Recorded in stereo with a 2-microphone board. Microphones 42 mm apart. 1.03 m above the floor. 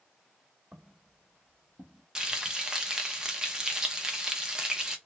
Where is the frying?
20° right (ahead or behind), 0.5 m.